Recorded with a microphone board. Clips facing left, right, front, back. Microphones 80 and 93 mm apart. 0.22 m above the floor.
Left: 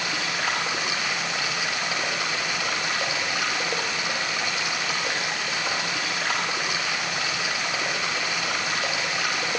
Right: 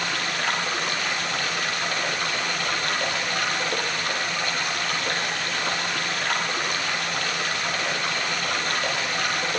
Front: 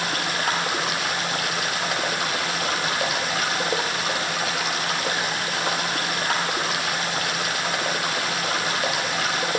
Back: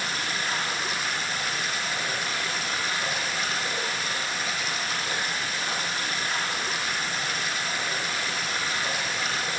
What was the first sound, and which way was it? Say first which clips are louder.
Running water: right 1 dB, front 5 dB; 10° left.